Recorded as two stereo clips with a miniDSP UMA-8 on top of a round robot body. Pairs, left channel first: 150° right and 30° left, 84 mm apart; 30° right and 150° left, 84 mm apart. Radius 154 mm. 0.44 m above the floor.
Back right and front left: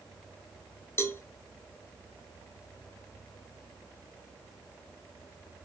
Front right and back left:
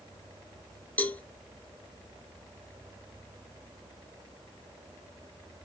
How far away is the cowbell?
About 0.9 m.